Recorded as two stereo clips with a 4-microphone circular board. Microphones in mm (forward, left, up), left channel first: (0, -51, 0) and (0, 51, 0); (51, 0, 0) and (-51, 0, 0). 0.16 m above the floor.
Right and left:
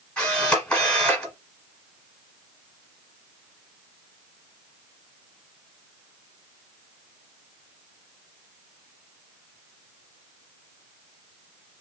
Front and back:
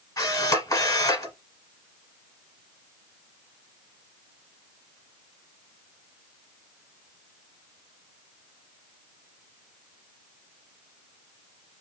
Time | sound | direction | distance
0.2 | a camera shutter | 15° right | 1.2 m